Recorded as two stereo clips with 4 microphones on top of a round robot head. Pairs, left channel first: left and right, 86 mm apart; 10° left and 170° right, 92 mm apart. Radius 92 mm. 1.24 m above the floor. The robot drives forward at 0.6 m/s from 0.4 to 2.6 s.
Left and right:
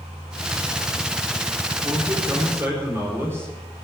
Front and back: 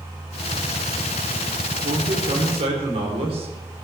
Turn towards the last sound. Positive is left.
turn(degrees=-160)